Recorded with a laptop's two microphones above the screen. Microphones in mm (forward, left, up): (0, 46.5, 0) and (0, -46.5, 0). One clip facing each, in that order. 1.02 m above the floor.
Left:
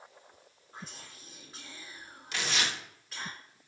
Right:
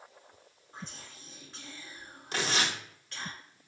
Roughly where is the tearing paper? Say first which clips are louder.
Right 2 dB; right.